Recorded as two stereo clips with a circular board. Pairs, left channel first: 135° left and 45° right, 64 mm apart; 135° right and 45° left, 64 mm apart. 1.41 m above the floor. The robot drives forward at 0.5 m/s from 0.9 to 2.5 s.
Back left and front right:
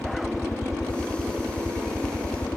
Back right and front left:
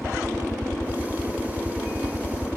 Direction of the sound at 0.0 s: 110° left.